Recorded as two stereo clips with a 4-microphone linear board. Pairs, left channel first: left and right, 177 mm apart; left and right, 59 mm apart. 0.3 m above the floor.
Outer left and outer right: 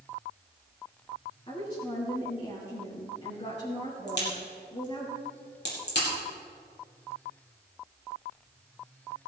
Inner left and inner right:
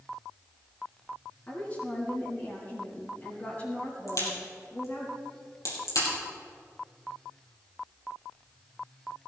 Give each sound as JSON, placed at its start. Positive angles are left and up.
{"t": 1.5, "sound": "a woman speaking", "side_deg": 35, "distance_m": 4.0}
{"t": 4.1, "sound": "a crack", "side_deg": 75, "distance_m": 6.0}